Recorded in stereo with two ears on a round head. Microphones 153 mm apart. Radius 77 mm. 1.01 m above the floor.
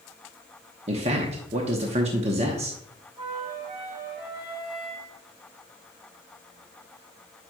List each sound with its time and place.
0.9 s a man speaking: 40° right (ahead or behind), 0.9 m
3.2 s a flute: 25° right (ahead or behind), 3.5 m